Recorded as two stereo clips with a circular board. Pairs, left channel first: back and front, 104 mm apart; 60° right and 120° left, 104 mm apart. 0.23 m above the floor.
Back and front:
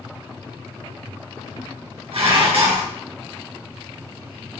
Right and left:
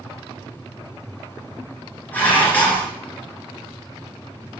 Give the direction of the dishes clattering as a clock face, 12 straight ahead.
12 o'clock.